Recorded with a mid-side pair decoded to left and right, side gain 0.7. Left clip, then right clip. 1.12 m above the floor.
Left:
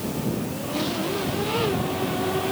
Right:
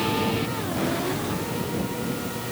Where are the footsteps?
I don't hear footsteps.